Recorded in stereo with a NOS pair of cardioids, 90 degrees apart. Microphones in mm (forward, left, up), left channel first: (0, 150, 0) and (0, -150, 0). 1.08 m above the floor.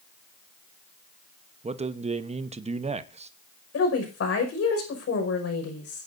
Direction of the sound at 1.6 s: 20° right.